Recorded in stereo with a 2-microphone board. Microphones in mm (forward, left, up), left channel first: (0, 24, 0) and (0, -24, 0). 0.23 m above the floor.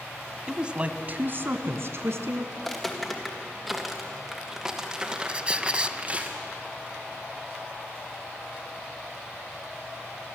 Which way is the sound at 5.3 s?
20° right (ahead or behind).